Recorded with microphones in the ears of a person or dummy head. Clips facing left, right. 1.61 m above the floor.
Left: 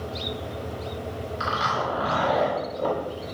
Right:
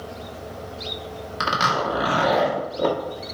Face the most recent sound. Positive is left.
turn(degrees=-70)  # may be behind; listen again after turning